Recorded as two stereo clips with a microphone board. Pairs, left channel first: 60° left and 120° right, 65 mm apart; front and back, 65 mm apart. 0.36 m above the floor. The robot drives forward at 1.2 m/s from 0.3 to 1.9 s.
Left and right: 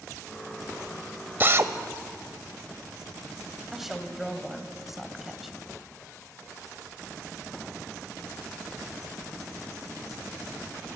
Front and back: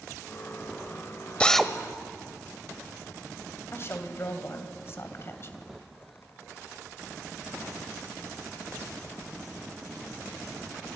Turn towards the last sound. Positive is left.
turn(degrees=-35)